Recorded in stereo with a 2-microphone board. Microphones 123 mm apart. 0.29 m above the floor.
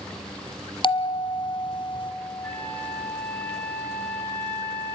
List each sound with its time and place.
0.8 s a bell: 40° left (ahead or behind), 1.2 m
2.4 s a flute: 15° left (ahead or behind), 5.5 m